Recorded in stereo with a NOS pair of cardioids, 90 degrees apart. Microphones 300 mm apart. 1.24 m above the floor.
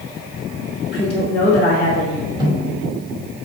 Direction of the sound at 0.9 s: 30° left.